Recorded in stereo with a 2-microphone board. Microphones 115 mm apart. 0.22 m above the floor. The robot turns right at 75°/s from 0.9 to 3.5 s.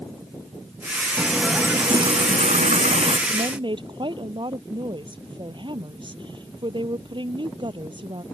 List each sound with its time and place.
1.2 s a running tap: 160° left; by 3.2 s 50° right
3.3 s a woman speaking: 60° right (ahead or behind); by 8.2 s 45° right (ahead or behind)